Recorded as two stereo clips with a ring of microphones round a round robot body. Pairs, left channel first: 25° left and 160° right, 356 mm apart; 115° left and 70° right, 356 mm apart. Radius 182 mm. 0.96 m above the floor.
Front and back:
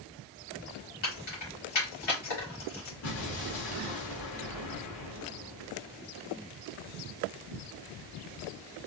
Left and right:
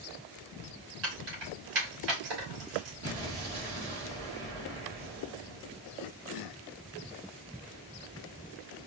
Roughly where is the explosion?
Ahead.